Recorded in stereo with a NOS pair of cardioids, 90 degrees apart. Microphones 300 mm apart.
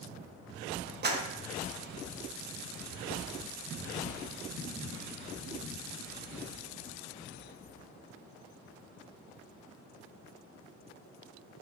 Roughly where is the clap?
Ahead right.